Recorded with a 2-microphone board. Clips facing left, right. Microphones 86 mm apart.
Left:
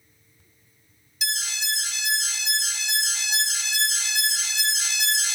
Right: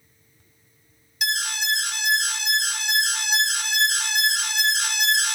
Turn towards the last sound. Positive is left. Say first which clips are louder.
# right 6 dB
turn(degrees=-60)  # may be behind; listen again after turning